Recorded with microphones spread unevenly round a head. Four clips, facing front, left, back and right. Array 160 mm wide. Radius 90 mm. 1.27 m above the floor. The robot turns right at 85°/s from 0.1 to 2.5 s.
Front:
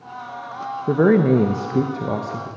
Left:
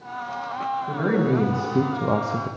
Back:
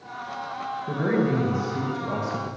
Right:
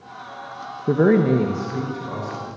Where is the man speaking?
50° right, 1.2 m; by 2.5 s 90° left, 1.2 m.